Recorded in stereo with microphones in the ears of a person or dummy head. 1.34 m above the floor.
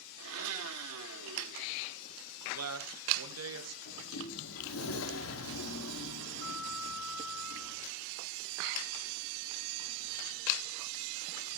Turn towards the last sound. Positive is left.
turn(degrees=75)  # may be behind; listen again after turning